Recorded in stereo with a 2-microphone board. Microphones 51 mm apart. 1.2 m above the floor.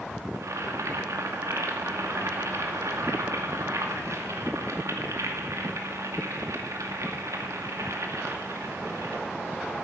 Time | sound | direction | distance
0.3 | boiling | 80° right | 2 m